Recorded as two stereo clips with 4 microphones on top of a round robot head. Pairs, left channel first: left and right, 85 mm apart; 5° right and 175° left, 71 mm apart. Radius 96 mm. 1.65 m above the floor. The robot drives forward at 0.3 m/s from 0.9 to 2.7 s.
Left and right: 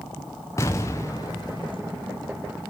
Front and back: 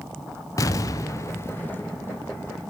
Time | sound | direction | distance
0.6 | an explosion | 25° left | 0.6 m